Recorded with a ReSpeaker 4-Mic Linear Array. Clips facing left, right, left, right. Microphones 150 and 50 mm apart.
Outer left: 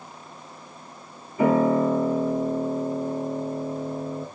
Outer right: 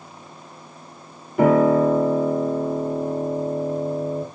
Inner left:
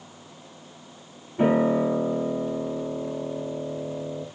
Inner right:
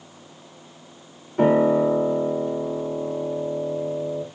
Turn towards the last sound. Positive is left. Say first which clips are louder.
# outer right 4 dB, inner right 4 dB
turn(degrees=-75)  # may be behind; listen again after turning